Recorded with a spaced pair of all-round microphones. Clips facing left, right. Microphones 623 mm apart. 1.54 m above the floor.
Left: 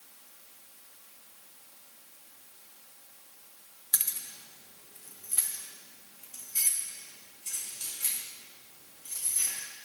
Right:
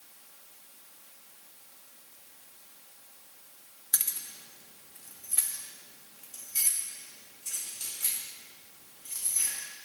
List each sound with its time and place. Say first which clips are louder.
3.9 s keys jangling: even; 5° left (ahead or behind), 0.6 m; by 9.5 s 5° right (ahead or behind), 3.5 m